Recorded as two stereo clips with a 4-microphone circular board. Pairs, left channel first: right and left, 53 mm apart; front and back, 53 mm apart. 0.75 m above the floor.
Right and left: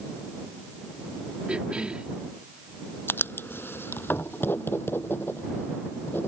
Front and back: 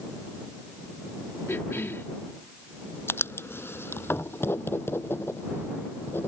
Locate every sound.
1.5 s a cough: 25° left
3.1 s writing: 45° right